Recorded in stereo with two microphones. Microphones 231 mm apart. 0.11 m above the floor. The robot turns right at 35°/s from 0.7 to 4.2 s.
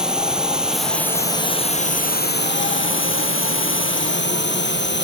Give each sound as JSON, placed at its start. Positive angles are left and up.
{"t": 0.0, "sound": "a drone", "azimuth_deg": -5}